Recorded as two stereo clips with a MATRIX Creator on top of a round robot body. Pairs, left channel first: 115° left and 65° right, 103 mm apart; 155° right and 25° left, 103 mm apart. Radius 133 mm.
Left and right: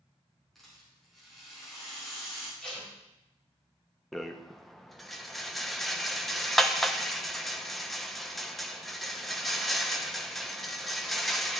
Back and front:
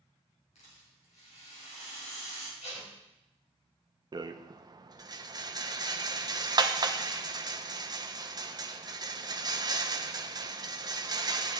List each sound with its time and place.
0.6 s a rattle: 160° right, 4.5 m
2.6 s tape being pulled: 165° right, 4.5 m
4.1 s a rattle: 25° left, 1.1 m